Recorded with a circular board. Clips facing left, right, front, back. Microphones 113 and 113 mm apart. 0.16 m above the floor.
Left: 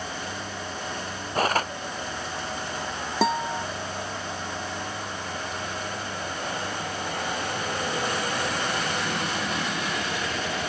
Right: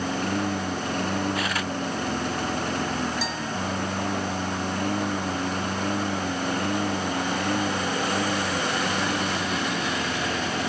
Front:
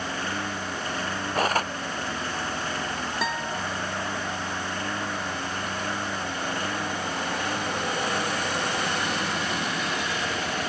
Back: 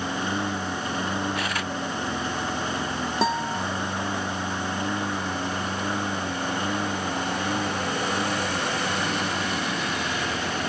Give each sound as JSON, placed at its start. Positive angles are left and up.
{"t": 0.0, "sound": "a lawn mower", "azimuth_deg": -110}
{"t": 1.4, "sound": "cutlery clinking", "azimuth_deg": 45}
{"t": 3.2, "sound": "a guitar", "azimuth_deg": 120}